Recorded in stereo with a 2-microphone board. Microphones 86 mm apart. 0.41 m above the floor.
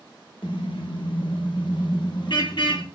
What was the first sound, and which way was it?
A car horn, 75° left (ahead or behind).